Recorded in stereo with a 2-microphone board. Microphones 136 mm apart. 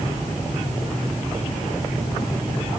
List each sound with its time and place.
Only background noise.